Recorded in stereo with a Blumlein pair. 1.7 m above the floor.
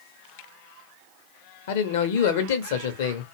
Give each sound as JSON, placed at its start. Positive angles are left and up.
{"t": 1.7, "sound": "a man speaking", "azimuth_deg": 55, "distance_m": 0.7}